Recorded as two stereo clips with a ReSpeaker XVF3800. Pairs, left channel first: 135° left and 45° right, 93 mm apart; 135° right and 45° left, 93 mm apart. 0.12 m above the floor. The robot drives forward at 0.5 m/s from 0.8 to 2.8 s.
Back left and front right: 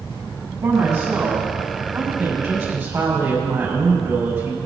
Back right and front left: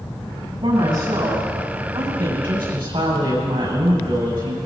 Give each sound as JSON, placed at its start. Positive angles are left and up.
{"t": 0.6, "sound": "a woman speaking", "azimuth_deg": 10, "distance_m": 6.5}